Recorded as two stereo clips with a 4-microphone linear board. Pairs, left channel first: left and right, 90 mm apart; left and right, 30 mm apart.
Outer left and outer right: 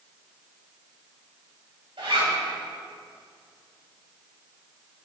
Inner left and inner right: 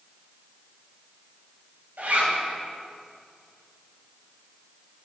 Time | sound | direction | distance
2.0 | a zipper | 80° right | 2.5 m